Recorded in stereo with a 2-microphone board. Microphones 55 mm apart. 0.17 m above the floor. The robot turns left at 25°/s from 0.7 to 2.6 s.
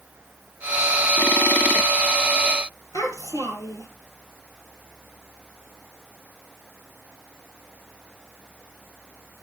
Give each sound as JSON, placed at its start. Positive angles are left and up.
{"t": 2.9, "sound": "a child speaking", "side_deg": 70, "distance_m": 4.0}